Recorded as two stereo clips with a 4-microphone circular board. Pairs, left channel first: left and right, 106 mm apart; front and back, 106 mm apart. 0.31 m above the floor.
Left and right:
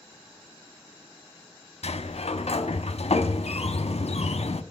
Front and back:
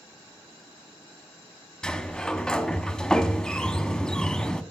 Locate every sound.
1.8 s a sliding door: 85° left, 0.6 m